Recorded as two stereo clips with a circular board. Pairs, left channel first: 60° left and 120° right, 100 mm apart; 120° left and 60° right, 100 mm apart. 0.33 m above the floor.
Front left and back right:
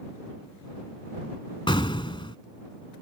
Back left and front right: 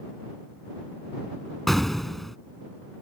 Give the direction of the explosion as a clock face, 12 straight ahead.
11 o'clock.